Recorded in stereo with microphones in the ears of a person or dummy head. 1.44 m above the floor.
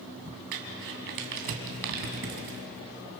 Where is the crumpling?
65° right (ahead or behind), 3 m.